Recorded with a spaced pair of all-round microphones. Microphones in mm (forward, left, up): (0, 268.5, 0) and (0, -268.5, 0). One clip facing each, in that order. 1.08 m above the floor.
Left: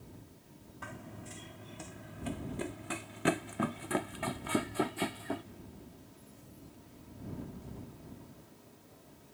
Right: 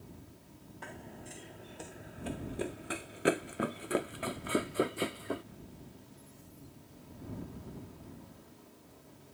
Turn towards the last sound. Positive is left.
turn(degrees=15)  # may be behind; listen again after turning